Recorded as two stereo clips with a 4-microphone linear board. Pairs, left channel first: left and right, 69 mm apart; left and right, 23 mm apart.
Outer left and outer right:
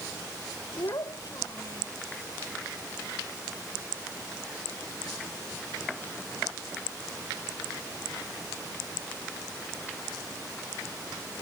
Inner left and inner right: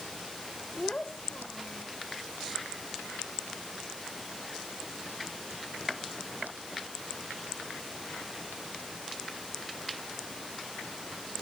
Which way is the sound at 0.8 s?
65° left (ahead or behind).